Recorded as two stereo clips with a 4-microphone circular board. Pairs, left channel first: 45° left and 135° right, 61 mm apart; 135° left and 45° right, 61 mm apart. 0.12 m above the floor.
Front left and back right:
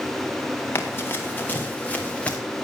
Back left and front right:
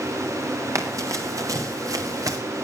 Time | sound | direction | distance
0.8 | running footsteps | 10° right | 3.5 m